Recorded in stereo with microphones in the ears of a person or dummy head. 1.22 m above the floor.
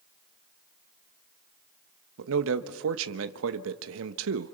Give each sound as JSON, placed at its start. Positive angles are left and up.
{"t": 2.2, "sound": "a man speaking", "side_deg": -75, "distance_m": 1.1}